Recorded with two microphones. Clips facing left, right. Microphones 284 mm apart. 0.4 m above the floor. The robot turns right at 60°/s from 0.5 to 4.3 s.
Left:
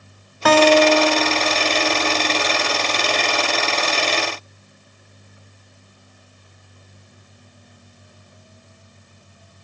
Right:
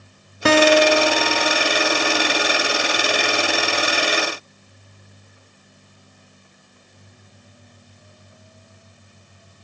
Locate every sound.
0.5 s a guitar: 45° right, 1.1 m; by 2.5 s 75° left, 1.1 m